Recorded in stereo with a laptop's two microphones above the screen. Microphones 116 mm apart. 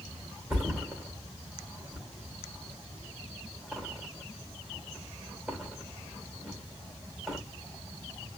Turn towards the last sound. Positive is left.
turn(degrees=-5)  # may be behind; listen again after turning